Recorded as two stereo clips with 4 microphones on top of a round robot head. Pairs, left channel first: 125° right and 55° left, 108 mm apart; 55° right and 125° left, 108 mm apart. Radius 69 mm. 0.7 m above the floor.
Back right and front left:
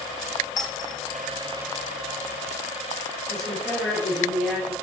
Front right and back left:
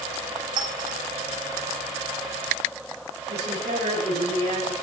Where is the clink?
175° left, 4 m.